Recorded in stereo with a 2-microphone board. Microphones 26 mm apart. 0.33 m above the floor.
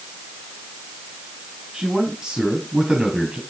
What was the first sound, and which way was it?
A man speaking, 30° right (ahead or behind).